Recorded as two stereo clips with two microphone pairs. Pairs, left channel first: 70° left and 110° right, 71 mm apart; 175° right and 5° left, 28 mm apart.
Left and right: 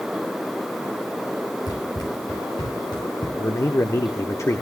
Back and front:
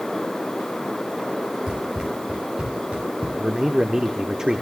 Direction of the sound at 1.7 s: 65° left.